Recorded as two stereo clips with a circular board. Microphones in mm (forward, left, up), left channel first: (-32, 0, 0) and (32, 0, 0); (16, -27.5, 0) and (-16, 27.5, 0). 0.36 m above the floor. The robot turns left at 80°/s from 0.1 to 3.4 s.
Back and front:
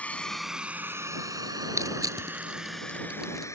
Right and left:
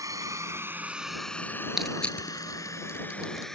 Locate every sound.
0.0 s a drone: 115° left; by 3.6 s 140° right
1.8 s crushing: 35° left; by 3.5 s 95° right